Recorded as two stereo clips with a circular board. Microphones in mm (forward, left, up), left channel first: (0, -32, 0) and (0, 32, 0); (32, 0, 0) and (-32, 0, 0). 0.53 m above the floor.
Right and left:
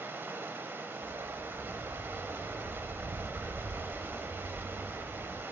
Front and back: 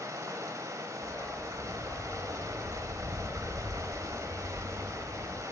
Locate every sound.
0.0 s running water: 145° left, 0.7 m
1.0 s a dog barking: 60° left, 0.6 m